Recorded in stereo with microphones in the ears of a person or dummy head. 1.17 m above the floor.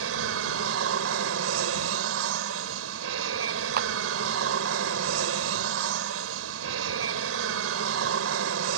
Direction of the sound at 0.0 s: 75° right (ahead or behind).